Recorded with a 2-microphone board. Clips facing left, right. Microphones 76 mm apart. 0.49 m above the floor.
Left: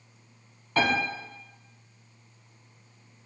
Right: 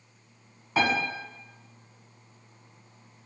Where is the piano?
5° right (ahead or behind), 1.6 m.